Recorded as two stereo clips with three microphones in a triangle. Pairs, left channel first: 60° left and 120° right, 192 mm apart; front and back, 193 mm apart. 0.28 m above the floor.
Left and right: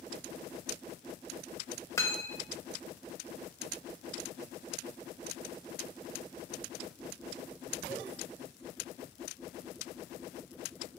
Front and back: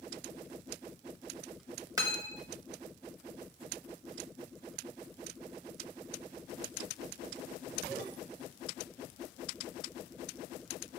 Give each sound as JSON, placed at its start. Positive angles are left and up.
{"t": 2.0, "sound": "cutlery clinking", "azimuth_deg": 125, "distance_m": 0.6}